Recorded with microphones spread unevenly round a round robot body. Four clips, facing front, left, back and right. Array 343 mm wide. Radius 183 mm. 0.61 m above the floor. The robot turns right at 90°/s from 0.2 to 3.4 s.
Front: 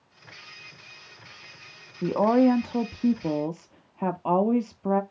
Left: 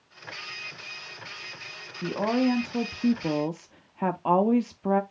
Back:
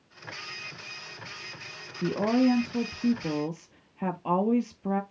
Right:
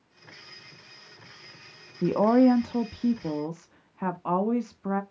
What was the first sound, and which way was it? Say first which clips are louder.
A woman speaking: right 5 dB, front 4 dB; 70° right.